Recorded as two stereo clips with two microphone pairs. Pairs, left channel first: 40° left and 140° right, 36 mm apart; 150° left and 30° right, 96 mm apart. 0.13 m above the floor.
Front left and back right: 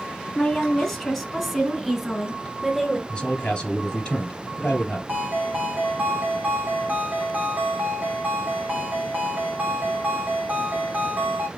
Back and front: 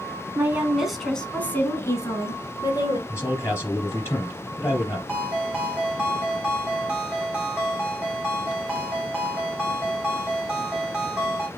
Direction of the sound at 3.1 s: 95° left.